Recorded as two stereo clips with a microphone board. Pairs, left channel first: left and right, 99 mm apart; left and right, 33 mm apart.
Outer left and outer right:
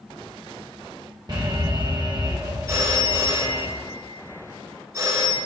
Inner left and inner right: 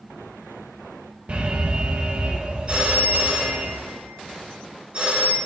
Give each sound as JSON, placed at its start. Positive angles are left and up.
{"t": 1.3, "sound": "an alarm", "side_deg": -45, "distance_m": 0.9}
{"t": 2.7, "sound": "a phone ringing", "side_deg": -40, "distance_m": 2.5}